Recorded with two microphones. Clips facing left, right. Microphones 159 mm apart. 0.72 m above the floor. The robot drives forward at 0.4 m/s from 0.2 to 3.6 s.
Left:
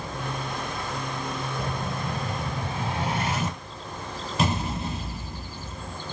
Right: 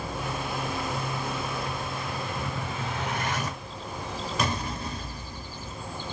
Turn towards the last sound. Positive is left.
turn(degrees=25)  # may be behind; listen again after turning